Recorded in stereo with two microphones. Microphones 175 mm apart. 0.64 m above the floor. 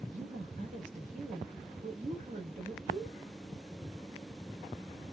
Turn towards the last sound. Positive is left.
turn(degrees=-40)  # may be behind; listen again after turning